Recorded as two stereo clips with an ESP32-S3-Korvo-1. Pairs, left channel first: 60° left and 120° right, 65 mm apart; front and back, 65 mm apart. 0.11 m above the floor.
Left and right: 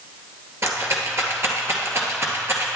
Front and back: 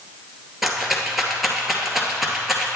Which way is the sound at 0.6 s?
95° right.